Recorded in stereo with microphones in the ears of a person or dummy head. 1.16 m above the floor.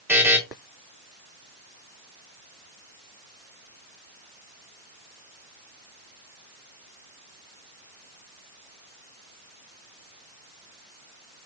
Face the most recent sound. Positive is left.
turn(degrees=-5)  # may be behind; listen again after turning